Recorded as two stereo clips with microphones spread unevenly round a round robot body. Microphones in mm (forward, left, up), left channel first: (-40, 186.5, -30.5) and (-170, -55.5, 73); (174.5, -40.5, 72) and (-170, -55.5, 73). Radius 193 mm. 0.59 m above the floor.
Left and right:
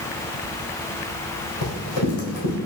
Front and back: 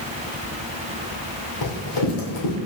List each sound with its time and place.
1.6 s running footsteps: 25° left, 1.7 m